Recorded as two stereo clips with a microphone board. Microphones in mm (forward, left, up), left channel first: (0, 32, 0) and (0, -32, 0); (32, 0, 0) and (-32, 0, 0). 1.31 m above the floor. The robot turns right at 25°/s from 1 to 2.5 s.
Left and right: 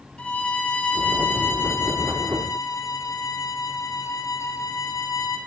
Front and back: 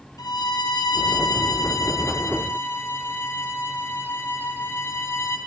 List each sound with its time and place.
0.2 s a violin: 15° left, 1.5 m; by 5.4 s 55° left, 1.5 m